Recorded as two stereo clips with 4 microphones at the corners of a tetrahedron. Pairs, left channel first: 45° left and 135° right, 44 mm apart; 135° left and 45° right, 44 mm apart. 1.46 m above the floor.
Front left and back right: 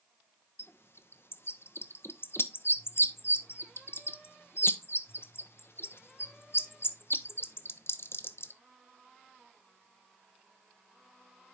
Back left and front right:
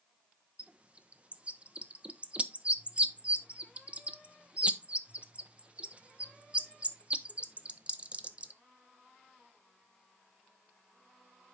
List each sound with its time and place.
0.6 s a bird: 20° left, 0.7 m